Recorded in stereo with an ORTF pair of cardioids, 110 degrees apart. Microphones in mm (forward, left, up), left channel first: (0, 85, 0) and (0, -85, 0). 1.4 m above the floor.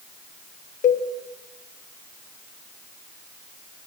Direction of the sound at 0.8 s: 45° left.